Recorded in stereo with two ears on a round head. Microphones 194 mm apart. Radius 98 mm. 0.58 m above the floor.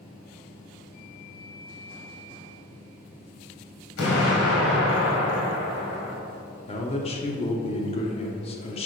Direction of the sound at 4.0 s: 70° left (ahead or behind).